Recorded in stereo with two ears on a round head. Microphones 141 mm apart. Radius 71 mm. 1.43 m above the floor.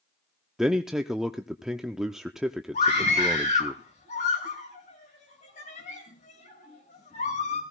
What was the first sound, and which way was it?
A man speaking, centre (ahead or behind).